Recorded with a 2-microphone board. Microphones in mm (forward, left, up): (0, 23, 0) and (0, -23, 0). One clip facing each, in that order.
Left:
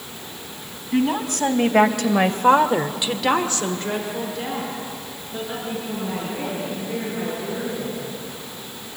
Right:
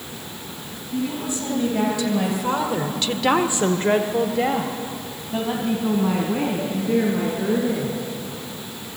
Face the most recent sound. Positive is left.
turn(degrees=-70)  # may be behind; listen again after turning